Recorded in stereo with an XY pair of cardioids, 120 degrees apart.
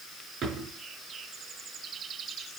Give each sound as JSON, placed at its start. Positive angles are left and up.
{"t": 0.4, "sound": "a drawer", "azimuth_deg": -55, "distance_m": 4.5}